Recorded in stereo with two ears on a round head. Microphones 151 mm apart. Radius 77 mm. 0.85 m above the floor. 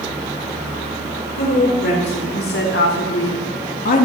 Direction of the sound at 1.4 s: 55° left (ahead or behind).